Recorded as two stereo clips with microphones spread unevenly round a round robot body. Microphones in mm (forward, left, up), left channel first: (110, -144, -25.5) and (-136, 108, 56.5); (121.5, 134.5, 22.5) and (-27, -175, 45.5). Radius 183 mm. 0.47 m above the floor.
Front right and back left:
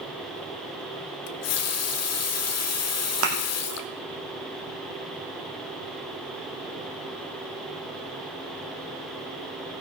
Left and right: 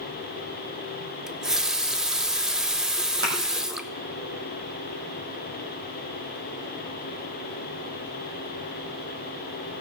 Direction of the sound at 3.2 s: Straight behind.